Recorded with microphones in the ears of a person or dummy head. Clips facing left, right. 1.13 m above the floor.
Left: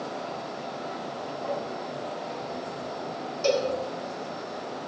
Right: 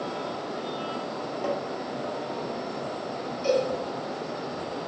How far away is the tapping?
About 1.9 m.